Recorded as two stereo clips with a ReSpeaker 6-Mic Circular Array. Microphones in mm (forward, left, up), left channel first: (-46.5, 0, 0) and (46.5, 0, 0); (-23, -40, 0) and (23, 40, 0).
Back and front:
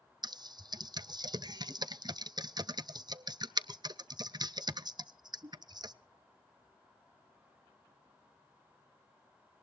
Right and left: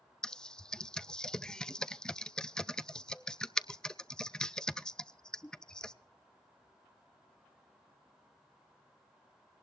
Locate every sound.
0.2 s typing on a keyboard: 40° right, 0.5 m